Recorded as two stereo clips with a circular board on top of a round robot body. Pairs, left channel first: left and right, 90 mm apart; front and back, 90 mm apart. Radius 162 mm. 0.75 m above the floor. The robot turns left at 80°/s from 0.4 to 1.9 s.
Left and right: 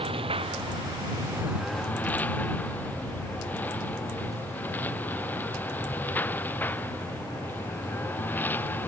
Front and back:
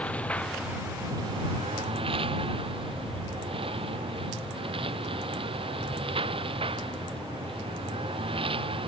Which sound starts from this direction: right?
A lawn mower, at 0.0 s.